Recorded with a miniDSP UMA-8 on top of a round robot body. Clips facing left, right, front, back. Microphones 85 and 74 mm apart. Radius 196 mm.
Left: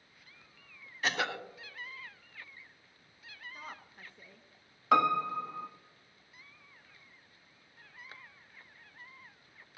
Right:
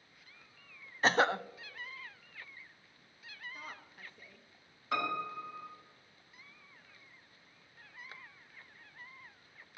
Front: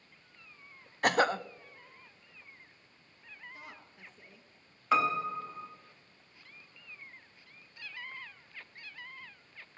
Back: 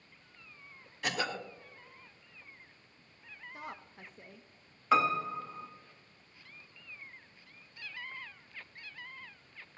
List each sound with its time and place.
1.0 s a cough: 35° right, 0.7 m
3.5 s a woman speaking: straight behind, 1.2 m
4.9 s a piano: 90° left, 1.2 m